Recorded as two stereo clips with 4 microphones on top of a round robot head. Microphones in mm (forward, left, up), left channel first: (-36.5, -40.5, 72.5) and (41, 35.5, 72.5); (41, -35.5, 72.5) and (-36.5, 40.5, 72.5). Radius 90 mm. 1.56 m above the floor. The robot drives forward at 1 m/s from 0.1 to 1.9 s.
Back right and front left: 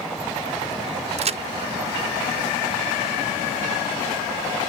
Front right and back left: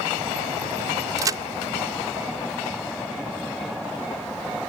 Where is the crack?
75° left.